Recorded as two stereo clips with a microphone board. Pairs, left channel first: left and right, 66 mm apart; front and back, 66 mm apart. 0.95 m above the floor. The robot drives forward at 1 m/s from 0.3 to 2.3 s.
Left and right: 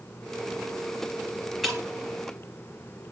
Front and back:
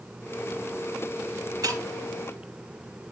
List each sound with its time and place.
1.6 s breaking glass: straight behind, 4.5 m